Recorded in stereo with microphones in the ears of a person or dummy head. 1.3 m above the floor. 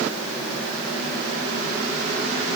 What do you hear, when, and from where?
Only background noise.